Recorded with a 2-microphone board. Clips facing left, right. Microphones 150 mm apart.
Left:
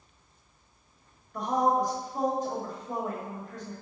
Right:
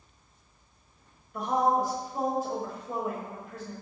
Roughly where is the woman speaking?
Centre.